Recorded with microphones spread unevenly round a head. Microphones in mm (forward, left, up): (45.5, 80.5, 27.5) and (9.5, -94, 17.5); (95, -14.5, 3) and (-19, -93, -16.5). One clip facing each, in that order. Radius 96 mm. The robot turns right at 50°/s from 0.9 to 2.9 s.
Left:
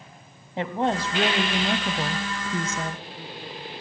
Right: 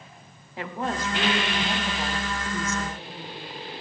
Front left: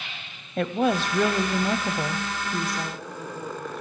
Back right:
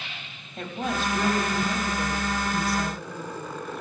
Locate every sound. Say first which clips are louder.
0.6 s a woman speaking: left 5 dB, front left 7 dB; 15° left, 0.9 m; by 3.0 s 115° left, 0.9 m